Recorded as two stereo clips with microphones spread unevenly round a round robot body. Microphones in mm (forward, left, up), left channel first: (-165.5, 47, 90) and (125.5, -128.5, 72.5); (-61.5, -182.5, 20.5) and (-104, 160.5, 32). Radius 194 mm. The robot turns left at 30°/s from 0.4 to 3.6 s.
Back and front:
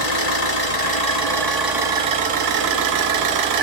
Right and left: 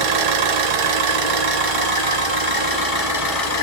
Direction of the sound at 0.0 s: 95° left.